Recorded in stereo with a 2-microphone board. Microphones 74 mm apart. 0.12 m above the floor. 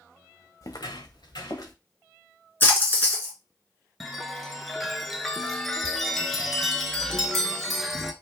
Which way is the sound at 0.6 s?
40° left (ahead or behind).